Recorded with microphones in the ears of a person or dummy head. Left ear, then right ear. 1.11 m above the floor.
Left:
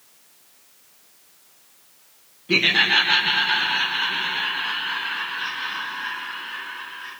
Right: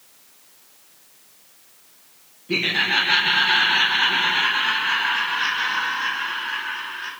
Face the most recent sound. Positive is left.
turn(degrees=-50)  # may be behind; listen again after turning